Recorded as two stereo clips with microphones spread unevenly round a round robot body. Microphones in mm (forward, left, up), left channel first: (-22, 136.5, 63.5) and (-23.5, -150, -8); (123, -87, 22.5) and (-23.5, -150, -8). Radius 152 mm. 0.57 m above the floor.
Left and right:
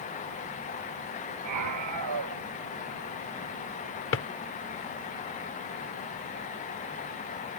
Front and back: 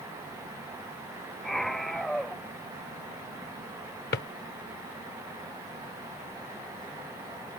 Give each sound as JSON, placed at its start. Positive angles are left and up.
{"t": 1.4, "sound": "a scream", "azimuth_deg": -65}
{"t": 4.1, "sound": "a drawer", "azimuth_deg": 40}